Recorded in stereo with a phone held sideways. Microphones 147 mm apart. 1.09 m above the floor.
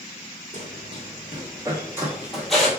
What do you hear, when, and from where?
0.5 s running footsteps: 45° right (ahead or behind), 1.5 m; by 2.7 s 5° left (ahead or behind), 1.1 m